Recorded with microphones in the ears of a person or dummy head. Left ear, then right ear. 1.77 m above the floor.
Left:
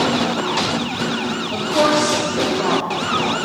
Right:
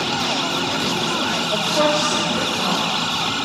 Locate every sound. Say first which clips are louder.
1.5 s a woman speaking: left 3 dB; 20° right (ahead or behind), 2.5 m; by 3.5 s 15° left (ahead or behind), 1.3 m